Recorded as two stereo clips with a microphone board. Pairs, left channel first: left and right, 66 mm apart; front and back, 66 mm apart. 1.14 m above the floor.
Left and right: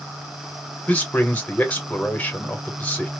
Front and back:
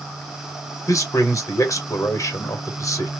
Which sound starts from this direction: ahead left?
A man speaking, at 0.9 s.